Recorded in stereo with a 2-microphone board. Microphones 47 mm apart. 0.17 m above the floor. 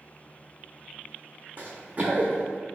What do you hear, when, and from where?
1.6 s running footsteps: 35° right (ahead or behind), 0.5 m